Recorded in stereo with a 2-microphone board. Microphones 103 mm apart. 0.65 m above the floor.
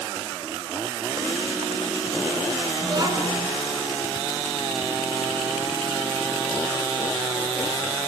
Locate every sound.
2.8 s a child speaking: 40° right (ahead or behind), 5 m